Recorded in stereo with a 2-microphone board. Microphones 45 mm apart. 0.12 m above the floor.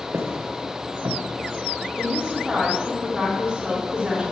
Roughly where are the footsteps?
Right.